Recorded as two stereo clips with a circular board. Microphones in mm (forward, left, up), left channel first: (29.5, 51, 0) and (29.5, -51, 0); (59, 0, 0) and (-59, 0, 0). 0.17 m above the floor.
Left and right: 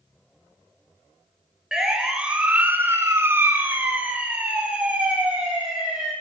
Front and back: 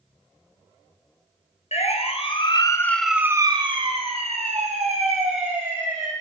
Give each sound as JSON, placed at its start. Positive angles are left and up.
{"t": 1.7, "sound": "a siren", "azimuth_deg": -5, "distance_m": 2.5}